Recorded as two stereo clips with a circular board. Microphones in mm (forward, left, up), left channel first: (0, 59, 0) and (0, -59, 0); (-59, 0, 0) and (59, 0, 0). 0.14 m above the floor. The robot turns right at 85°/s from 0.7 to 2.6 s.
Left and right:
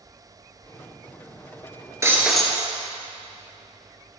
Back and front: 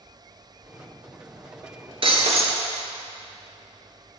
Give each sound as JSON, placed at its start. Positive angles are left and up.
{"t": 2.0, "sound": "breaking glass", "azimuth_deg": -30, "distance_m": 1.0}